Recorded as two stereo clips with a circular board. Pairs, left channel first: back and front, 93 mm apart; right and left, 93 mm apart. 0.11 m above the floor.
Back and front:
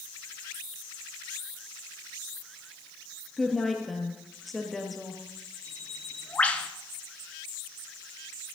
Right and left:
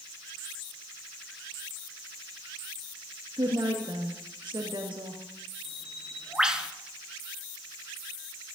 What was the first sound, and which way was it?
A woman speaking, 90° left.